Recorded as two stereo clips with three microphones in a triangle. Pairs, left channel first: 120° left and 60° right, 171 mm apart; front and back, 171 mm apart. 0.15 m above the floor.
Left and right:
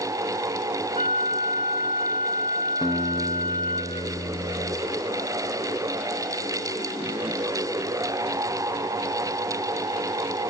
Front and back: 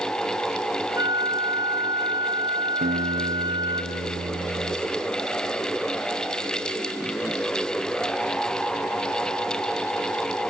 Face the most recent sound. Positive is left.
turn(degrees=-175)